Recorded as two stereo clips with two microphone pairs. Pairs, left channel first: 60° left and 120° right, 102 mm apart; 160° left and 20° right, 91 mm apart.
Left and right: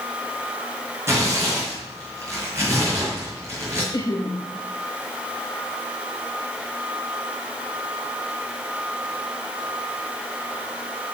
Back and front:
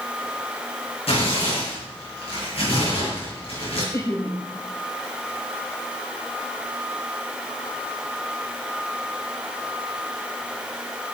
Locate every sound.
1.1 s tearing paper: 175° left, 7.5 m
3.9 s laughter: 110° left, 2 m